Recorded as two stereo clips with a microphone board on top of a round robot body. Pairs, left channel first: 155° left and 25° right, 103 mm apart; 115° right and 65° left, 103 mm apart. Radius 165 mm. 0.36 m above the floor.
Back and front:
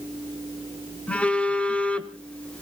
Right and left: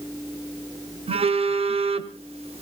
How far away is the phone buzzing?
About 1.3 m.